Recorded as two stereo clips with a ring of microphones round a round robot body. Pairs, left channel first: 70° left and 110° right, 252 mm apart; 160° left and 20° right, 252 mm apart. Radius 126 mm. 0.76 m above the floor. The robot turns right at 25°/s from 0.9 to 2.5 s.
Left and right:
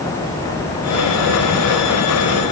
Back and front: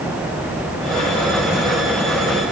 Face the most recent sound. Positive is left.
No sound to turn to.